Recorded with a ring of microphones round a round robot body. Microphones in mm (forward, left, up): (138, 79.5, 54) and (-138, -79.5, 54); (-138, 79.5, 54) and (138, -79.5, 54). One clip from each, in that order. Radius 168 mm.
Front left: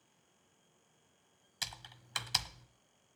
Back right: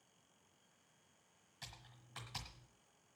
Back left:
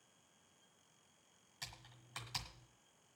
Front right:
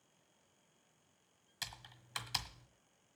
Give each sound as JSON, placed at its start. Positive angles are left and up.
{"t": 1.6, "sound": "typing on a keyboard", "azimuth_deg": 35, "distance_m": 1.4}